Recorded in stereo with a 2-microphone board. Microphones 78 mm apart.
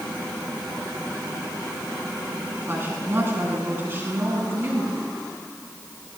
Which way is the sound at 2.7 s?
35° right (ahead or behind).